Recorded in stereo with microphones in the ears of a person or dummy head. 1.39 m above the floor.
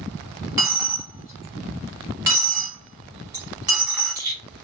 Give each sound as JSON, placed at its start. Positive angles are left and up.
{"t": 0.6, "sound": "a dropped coin", "side_deg": -25, "distance_m": 1.0}